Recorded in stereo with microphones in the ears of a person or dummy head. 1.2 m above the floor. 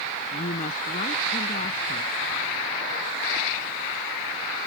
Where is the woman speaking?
45° left (ahead or behind).